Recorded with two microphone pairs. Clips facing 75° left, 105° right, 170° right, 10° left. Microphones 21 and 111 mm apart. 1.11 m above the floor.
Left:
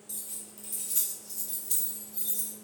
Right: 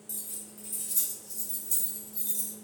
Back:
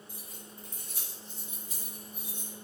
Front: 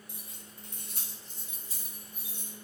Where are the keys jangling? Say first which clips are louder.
Even, back 2 dB; 10° left, 0.8 m; by 2.5 s 85° left, 1.5 m.